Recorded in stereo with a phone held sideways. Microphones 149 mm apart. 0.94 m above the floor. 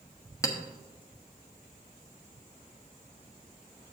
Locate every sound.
0.4 s a clink: 25° left (ahead or behind), 1.0 m